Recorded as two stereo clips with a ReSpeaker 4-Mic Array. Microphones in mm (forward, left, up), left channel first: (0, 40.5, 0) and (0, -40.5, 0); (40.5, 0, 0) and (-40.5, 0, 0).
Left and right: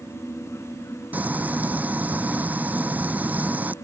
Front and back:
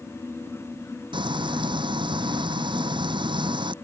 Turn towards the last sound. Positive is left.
turn(degrees=-160)